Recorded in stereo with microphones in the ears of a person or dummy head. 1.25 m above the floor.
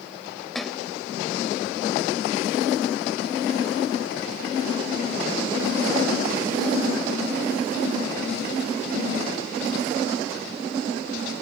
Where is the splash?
Centre (ahead or behind).